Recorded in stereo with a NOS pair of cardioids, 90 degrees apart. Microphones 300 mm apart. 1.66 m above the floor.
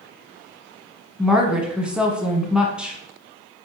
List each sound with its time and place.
1.2 s a woman speaking: 5° right, 0.9 m